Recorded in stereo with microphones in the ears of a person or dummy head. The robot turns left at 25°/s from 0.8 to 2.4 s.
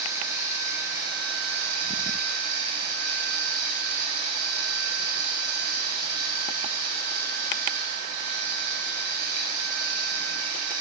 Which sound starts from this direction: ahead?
Running water, at 0.0 s.